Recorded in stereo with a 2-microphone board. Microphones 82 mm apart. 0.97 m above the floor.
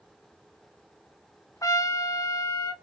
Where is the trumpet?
40° left (ahead or behind), 1.0 m.